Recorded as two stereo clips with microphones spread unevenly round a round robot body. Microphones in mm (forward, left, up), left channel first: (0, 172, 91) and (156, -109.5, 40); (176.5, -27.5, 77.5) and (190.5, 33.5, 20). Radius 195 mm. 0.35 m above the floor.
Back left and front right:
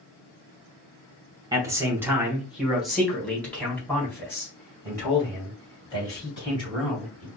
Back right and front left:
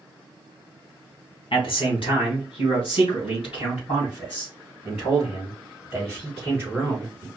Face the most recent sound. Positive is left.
turn(degrees=-160)